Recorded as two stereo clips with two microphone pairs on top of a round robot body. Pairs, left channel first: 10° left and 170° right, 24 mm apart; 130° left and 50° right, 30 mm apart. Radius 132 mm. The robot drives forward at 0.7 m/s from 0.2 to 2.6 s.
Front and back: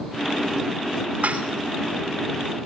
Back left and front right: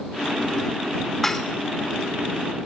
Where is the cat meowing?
No cat meowing in this recording.